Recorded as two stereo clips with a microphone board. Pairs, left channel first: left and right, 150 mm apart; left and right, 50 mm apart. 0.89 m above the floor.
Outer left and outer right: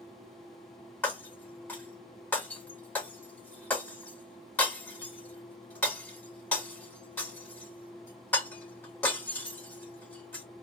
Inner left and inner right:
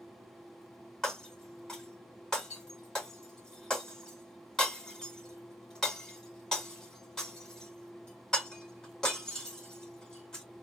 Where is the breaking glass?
10° left (ahead or behind), 3.5 m.